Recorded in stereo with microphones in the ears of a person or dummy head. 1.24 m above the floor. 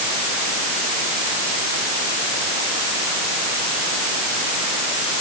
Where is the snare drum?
I don't hear a snare drum.